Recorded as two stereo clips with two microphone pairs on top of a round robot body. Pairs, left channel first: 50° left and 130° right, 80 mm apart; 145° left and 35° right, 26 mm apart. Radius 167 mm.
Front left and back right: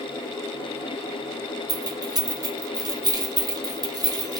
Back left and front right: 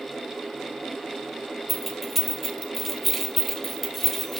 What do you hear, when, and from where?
1.7 s keys jangling: 130° right, 1.0 m